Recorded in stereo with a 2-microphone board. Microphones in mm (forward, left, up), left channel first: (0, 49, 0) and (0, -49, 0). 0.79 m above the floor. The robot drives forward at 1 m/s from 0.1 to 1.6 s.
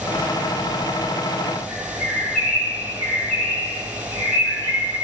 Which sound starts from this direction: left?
A bird, at 1.7 s.